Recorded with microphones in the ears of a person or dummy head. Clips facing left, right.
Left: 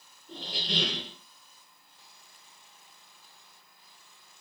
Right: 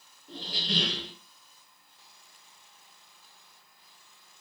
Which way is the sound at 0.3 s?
55° right (ahead or behind).